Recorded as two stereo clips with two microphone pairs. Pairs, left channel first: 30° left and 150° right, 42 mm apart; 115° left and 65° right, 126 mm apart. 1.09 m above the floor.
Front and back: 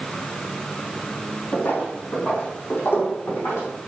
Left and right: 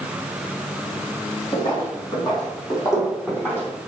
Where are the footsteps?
65° left, 4 m; by 3.7 s 40° left, 3.5 m.